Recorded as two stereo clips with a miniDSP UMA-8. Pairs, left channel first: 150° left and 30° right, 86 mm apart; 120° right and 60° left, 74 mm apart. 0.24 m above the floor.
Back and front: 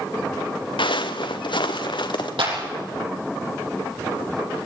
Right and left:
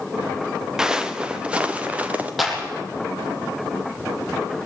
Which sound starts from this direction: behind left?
Footsteps, at 0.8 s.